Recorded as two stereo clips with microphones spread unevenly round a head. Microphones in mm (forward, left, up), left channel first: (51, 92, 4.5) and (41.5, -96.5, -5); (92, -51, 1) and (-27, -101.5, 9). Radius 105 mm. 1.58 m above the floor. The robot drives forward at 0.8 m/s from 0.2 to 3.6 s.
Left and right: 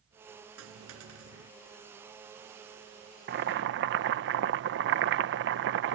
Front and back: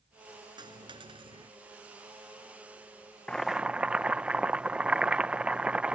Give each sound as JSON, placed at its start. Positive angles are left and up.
{"t": 0.6, "sound": "a dropped coin", "azimuth_deg": -105}
{"t": 3.3, "sound": "boiling", "azimuth_deg": -60}